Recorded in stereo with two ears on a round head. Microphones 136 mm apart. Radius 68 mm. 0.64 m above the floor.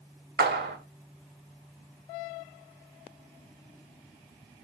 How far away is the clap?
About 1.8 m.